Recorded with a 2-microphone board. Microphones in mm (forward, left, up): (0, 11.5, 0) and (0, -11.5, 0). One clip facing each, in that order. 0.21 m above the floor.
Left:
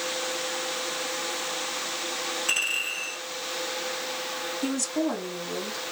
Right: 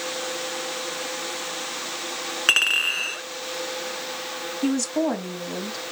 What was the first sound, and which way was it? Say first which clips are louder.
A clink: right 9 dB; 50° right (ahead or behind).